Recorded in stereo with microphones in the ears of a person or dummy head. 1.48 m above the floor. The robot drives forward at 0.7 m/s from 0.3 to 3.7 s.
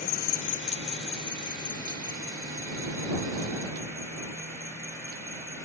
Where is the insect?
45° left (ahead or behind); by 5.7 s 10° left (ahead or behind).